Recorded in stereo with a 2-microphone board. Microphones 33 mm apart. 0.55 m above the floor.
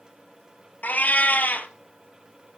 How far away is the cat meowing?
About 0.9 m.